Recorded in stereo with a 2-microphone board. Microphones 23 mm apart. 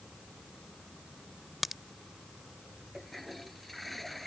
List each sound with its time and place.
1.6 s a crack: 5° right (ahead or behind)
2.9 s a toilet flushing: 5° left (ahead or behind)